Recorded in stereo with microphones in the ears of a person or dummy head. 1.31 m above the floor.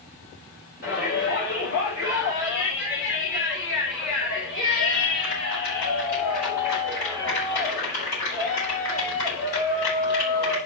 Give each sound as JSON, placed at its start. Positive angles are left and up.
{"t": 0.8, "sound": "a shout", "side_deg": 55, "distance_m": 6.0}